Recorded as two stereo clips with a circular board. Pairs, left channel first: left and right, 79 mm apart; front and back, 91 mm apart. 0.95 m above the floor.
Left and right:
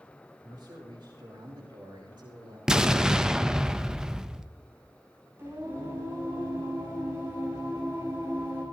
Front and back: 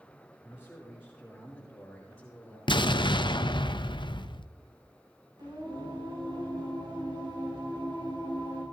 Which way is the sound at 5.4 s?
145° right.